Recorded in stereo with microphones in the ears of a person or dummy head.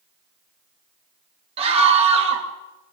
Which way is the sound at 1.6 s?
35° right (ahead or behind).